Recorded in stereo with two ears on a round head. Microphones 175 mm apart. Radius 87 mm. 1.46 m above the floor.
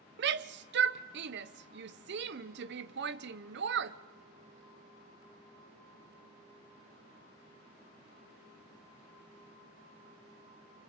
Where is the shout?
60° right (ahead or behind), 0.7 m.